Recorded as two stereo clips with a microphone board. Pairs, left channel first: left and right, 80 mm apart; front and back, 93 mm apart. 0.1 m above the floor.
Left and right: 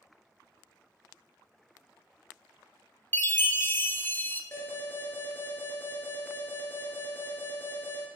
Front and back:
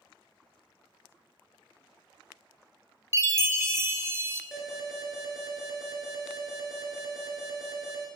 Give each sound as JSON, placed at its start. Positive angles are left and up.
{"t": 3.1, "sound": "a chime", "azimuth_deg": 135, "distance_m": 0.6}
{"t": 4.5, "sound": "an alarm", "azimuth_deg": 100, "distance_m": 2.0}